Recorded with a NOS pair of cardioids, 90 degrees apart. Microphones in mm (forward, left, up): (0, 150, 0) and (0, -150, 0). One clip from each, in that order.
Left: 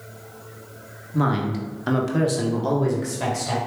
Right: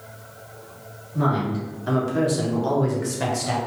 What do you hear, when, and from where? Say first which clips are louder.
1.1 s a woman speaking: even; 60° left, 1.1 m; by 3.6 s 20° right, 1.0 m